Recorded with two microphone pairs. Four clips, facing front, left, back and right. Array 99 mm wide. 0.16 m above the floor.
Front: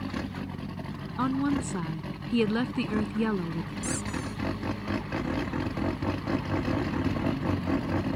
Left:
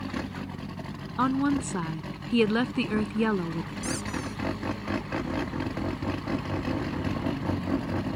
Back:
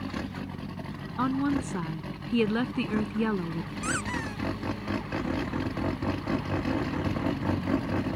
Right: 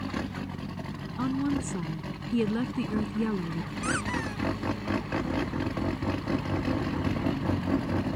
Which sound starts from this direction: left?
A woman speaking, at 1.2 s.